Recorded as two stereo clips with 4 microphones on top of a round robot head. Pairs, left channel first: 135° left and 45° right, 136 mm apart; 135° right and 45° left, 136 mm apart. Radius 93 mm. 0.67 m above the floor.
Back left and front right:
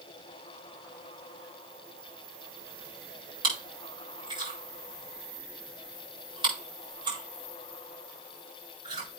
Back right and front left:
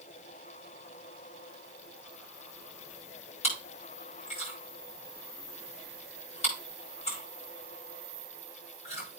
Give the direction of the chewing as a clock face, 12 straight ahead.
3 o'clock.